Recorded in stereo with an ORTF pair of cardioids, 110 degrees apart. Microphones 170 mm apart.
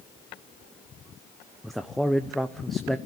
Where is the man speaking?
Straight ahead, 0.8 m.